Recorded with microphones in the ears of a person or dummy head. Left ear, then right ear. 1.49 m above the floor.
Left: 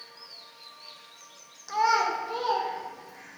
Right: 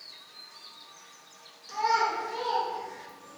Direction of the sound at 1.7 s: 60° left (ahead or behind).